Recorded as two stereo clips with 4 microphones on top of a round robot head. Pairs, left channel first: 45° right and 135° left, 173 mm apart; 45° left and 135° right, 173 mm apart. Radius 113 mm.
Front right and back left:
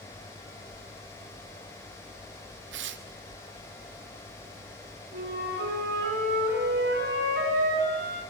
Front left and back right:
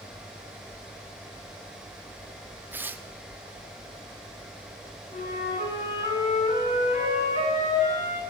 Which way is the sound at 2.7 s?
150° left.